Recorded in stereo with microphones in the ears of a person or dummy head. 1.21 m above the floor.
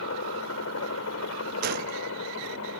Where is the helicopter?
75° left (ahead or behind).